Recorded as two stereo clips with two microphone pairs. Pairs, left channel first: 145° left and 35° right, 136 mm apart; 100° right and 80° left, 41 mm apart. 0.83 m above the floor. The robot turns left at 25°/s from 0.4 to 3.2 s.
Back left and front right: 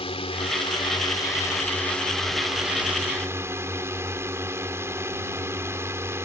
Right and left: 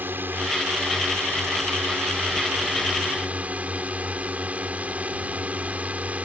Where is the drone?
105° left; by 6.3 s 35° left.